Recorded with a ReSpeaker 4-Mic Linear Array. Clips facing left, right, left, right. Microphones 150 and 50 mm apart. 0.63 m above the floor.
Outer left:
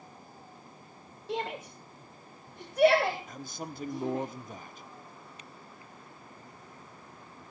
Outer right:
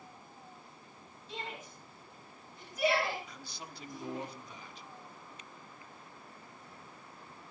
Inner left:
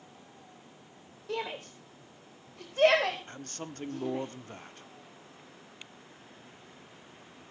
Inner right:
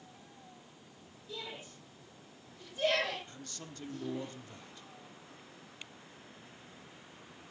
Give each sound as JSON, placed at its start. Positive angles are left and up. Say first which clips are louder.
{"t": 1.3, "sound": "a shout", "louder": "outer left 10 dB, inner left 9 dB", "side_deg": 70, "distance_m": 2.0}
{"t": 3.3, "sound": "a man speaking", "louder": "outer left 8 dB, inner left 6 dB", "side_deg": 45, "distance_m": 1.1}